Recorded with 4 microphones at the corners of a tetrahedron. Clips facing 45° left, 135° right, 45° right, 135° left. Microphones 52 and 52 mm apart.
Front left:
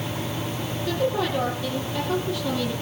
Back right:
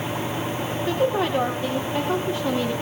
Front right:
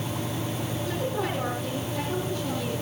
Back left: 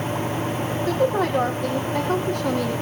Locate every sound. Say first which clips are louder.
0.9 s a woman speaking: back right 2 dB, back left 9 dB; 165° left, 6 m